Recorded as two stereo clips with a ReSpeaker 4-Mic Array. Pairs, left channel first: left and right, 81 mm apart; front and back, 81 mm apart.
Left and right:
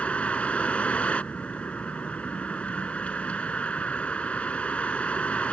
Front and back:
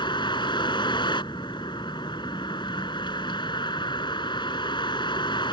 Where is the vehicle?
15° left.